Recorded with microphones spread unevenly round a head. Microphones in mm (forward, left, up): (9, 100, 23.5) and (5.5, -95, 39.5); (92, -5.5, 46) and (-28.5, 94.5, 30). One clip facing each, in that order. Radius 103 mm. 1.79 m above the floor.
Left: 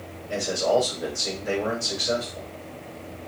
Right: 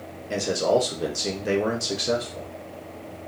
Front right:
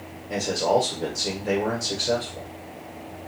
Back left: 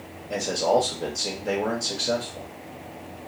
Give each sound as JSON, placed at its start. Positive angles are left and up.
{"t": 0.3, "sound": "a man speaking", "azimuth_deg": -125, "distance_m": 0.9}